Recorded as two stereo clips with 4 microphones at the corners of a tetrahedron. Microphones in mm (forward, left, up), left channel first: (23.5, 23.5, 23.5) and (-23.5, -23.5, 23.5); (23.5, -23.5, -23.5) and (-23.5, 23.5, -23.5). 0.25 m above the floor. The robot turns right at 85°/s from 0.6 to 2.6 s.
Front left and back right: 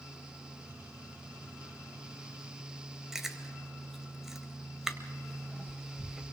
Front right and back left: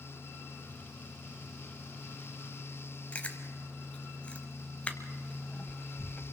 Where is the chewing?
65° right, 1.3 m.